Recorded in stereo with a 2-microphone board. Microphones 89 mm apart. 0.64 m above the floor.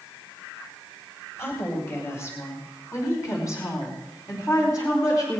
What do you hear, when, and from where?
1.4 s a woman speaking: 30° left (ahead or behind), 3.5 m; by 5.4 s 40° left (ahead or behind), 5.5 m